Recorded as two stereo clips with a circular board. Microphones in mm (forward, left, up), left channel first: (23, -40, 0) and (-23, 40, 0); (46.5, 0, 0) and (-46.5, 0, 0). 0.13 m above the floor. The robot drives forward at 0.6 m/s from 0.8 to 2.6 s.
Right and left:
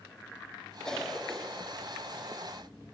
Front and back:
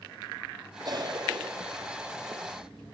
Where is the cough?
140° right, 2.5 m; by 2.5 s 155° right, 3.5 m.